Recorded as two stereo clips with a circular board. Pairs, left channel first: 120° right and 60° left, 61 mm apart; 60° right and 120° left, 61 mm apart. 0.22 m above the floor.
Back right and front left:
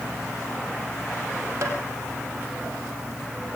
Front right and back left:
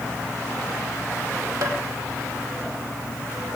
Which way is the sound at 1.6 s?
105° left.